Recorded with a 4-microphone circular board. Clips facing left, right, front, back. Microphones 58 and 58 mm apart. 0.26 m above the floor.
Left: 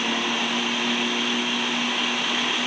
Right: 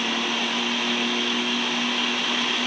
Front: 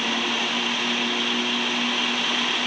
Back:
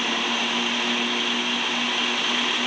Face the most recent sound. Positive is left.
No sound to turn to.